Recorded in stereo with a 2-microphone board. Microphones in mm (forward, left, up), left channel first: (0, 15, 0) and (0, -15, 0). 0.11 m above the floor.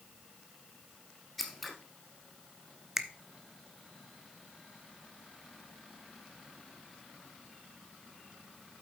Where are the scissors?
5° left (ahead or behind), 1.7 m.